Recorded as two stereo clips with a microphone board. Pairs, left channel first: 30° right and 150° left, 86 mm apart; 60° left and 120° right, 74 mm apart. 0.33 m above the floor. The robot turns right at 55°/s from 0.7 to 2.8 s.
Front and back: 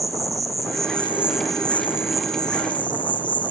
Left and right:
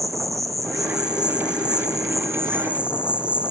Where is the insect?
160° right, 0.9 m; by 3.5 s 45° right, 0.9 m.